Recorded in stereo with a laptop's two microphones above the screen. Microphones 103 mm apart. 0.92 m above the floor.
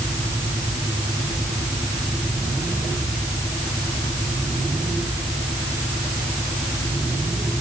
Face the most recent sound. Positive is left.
No sound to turn to.